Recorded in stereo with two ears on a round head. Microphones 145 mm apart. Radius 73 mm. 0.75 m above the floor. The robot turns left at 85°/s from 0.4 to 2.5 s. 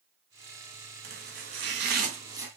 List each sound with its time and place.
1.0 s chopping: 45° right (ahead or behind), 2.5 m; by 2.5 s 15° right (ahead or behind), 2.5 m